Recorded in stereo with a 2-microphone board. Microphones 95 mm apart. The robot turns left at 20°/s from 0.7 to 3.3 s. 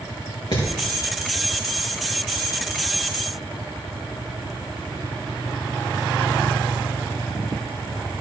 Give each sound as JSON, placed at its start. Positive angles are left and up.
{"t": 0.5, "sound": "hammering", "side_deg": 65, "distance_m": 5.5}